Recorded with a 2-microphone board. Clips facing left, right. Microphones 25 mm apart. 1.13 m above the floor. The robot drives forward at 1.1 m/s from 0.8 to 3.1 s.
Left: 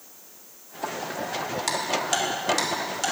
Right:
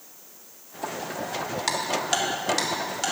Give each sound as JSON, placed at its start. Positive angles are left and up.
{"t": 1.7, "sound": "ticking", "side_deg": -15, "distance_m": 1.8}